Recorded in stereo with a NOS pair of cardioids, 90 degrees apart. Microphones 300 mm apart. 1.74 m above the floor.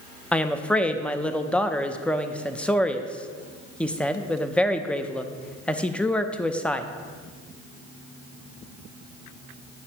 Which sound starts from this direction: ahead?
A woman speaking, at 0.3 s.